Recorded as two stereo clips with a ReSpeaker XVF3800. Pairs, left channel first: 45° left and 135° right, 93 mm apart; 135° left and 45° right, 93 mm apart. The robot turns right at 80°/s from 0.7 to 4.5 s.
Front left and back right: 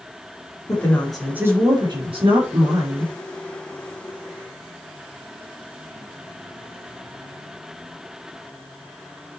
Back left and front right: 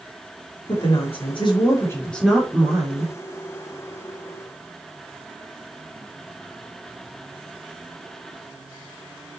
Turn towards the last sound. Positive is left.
turn(degrees=45)